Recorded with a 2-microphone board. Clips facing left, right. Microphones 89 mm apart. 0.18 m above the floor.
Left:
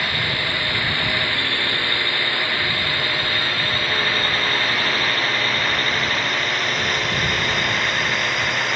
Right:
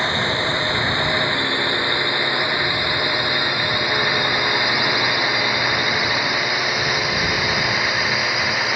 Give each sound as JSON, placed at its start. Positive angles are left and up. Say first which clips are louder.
{"t": 0.0, "sound": "a drone", "louder": "right 4 dB", "side_deg": -25}